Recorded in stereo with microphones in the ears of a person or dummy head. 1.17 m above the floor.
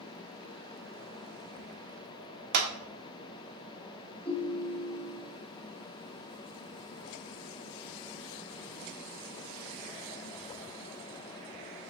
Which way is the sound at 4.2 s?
25° left (ahead or behind).